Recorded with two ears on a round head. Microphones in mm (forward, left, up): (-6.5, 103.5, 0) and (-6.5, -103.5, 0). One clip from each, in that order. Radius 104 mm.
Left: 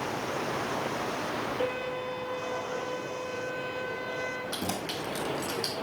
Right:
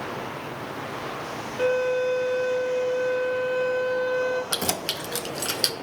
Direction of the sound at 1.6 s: 65° right (ahead or behind).